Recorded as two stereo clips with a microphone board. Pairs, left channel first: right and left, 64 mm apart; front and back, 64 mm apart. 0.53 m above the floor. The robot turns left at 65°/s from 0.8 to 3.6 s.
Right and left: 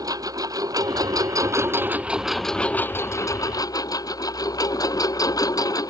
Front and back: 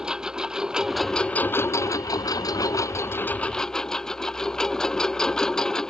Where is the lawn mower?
100° left; by 5.9 s 80° right.